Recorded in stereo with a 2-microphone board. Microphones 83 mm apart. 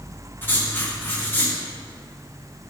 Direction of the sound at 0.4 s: 25° left (ahead or behind).